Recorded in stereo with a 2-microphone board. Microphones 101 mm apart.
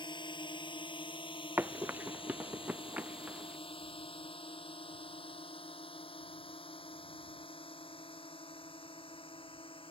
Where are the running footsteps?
25° right (ahead or behind); by 3.6 s 15° right (ahead or behind).